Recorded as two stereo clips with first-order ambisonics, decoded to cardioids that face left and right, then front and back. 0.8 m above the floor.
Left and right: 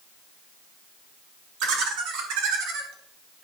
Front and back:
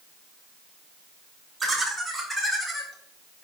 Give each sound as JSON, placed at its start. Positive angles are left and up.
{"t": 1.6, "sound": "laughter", "azimuth_deg": -95, "distance_m": 2.5}